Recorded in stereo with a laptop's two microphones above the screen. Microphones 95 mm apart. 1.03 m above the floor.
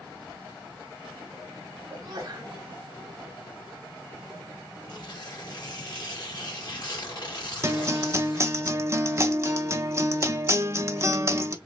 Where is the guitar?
30° right (ahead or behind), 0.6 m.